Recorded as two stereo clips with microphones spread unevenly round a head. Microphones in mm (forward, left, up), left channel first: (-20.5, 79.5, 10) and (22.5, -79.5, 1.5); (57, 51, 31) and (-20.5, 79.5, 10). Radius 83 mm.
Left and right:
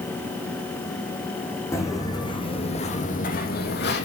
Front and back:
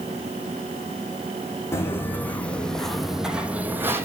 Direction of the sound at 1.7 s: 35° left.